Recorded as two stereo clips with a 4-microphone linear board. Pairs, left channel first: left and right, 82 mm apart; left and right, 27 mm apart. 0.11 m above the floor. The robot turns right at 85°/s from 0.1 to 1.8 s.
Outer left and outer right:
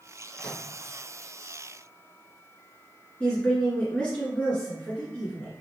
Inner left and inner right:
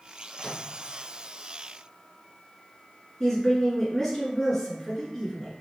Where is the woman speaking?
15° left (ahead or behind), 1.4 m.